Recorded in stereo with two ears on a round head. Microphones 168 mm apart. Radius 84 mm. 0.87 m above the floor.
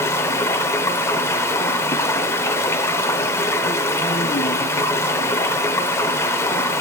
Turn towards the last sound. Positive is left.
turn(degrees=15)  # may be behind; listen again after turning